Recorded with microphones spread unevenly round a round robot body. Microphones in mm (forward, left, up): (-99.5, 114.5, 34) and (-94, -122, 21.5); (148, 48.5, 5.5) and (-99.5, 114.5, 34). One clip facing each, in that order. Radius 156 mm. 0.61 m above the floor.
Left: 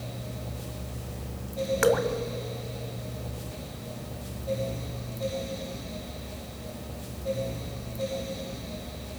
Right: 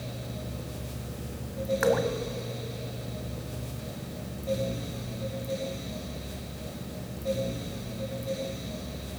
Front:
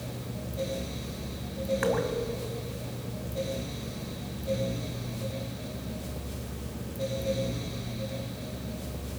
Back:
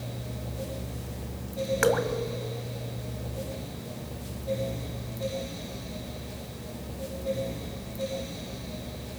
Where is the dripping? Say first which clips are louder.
Left 2 dB, back 4 dB; 140° left, 1.6 m.